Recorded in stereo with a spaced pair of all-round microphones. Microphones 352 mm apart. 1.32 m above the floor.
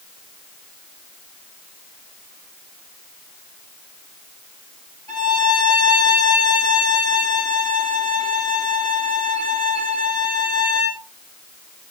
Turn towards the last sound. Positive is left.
turn(degrees=-65)  # may be behind; listen again after turning